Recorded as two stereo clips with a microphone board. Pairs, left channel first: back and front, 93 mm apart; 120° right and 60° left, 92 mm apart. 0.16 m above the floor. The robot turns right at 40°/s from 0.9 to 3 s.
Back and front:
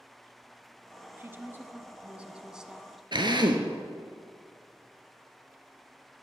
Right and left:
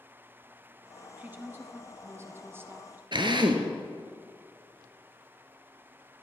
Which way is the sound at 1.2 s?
15° left.